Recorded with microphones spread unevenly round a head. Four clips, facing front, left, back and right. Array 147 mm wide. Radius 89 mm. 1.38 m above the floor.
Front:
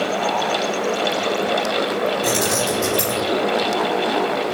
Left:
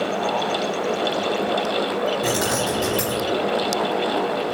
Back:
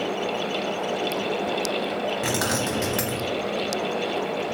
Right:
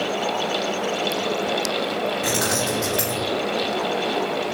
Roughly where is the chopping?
I don't hear chopping.